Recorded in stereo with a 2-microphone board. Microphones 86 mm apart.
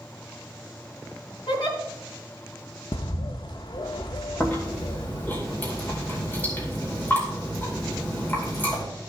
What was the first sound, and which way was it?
A giggle, 60° left (ahead or behind).